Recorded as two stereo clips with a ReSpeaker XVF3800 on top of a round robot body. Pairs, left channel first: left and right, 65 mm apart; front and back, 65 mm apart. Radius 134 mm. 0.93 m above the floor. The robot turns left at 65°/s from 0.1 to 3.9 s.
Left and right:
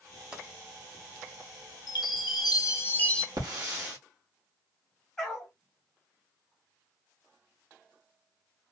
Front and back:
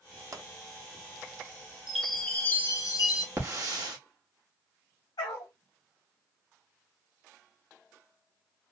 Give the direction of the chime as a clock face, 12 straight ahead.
9 o'clock.